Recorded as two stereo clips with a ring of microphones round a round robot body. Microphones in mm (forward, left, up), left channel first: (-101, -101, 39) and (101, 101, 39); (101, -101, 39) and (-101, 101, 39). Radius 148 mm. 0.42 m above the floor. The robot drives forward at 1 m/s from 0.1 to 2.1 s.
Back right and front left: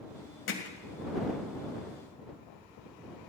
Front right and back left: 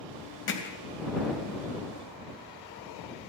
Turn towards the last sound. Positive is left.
turn(degrees=-125)